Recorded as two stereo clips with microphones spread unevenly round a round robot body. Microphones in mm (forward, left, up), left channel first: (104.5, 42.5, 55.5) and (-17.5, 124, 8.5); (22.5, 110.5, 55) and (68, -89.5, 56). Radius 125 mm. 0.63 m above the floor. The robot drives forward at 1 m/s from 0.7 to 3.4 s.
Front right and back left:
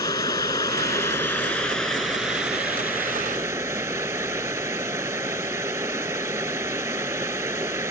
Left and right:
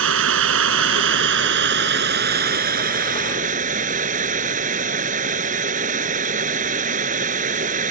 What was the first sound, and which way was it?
Running water, 105° right.